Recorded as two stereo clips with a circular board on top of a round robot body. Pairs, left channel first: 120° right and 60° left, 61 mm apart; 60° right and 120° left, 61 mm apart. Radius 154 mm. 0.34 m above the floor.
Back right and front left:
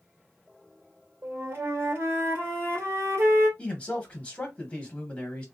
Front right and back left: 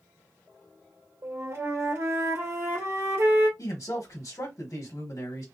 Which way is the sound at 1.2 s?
95° left.